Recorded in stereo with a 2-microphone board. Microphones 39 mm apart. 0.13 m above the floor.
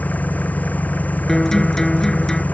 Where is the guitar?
15° left (ahead or behind).